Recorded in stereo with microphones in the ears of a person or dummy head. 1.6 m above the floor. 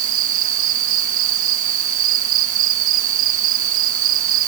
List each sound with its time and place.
0.0 s an insect: 70° right (ahead or behind)